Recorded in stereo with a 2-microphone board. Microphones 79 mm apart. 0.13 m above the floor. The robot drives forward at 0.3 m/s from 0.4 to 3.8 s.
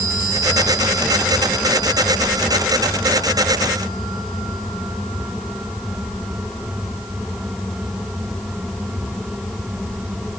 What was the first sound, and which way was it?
Only background noise.